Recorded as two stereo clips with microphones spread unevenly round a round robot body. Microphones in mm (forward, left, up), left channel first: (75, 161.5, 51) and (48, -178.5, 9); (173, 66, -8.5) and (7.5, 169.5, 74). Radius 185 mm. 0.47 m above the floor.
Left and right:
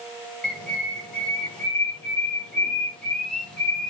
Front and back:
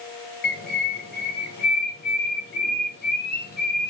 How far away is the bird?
About 1.0 m.